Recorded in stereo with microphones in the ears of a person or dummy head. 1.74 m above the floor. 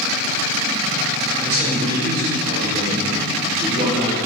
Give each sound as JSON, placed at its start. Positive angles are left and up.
{"t": 1.4, "sound": "a man speaking", "side_deg": -35, "distance_m": 4.5}